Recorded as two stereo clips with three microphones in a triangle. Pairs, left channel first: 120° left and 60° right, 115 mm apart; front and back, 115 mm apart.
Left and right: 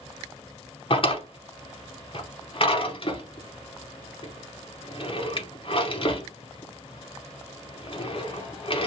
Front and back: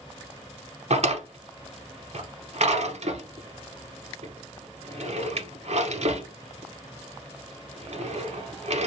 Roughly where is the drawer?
Behind.